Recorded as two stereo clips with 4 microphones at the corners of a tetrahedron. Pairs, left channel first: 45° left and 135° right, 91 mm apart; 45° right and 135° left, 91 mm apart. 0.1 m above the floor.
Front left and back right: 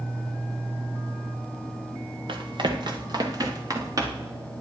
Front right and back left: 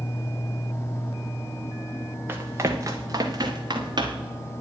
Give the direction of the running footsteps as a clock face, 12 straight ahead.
5 o'clock.